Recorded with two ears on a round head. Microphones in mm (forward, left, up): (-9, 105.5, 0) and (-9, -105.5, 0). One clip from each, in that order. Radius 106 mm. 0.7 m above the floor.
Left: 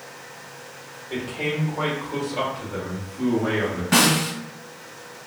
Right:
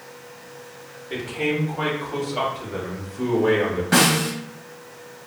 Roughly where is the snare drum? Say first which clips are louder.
Even; centre.